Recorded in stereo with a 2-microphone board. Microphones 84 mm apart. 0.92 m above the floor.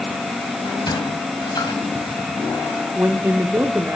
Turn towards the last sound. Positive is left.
turn(degrees=-30)  # may be behind; listen again after turning